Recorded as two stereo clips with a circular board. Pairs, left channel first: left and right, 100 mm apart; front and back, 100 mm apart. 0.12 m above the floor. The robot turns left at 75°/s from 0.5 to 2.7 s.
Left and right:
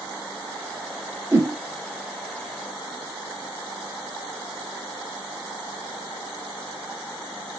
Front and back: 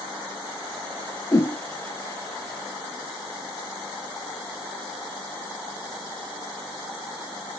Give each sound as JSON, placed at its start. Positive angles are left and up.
{"t": 1.3, "sound": "a whoosh", "azimuth_deg": -40, "distance_m": 0.8}